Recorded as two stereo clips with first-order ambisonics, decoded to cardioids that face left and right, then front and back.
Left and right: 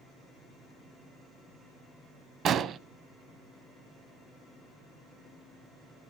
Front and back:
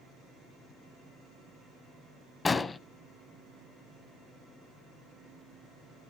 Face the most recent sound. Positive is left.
turn(degrees=-65)